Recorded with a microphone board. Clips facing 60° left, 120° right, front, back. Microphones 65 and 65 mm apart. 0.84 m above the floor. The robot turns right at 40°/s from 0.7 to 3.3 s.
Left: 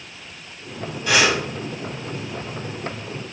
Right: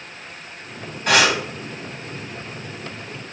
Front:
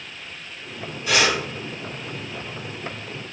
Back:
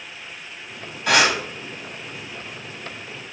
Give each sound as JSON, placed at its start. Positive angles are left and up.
{"t": 1.1, "sound": "breathing", "azimuth_deg": -155, "distance_m": 3.0}